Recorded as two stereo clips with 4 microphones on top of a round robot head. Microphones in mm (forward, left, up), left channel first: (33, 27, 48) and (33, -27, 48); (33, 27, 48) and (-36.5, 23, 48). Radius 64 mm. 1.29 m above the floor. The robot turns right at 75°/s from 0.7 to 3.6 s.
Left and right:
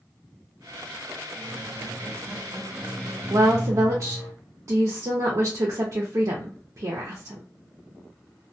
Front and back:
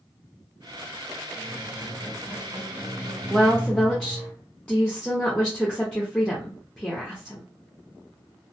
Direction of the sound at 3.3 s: 95° right.